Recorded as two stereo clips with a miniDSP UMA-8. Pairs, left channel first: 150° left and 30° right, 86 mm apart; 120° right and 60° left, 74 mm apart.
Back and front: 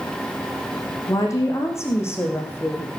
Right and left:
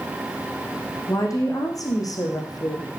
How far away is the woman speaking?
About 5.5 m.